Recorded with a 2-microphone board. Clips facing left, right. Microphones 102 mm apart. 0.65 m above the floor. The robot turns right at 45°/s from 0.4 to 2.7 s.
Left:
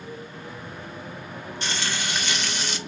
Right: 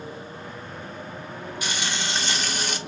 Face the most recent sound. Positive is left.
turn(degrees=-120)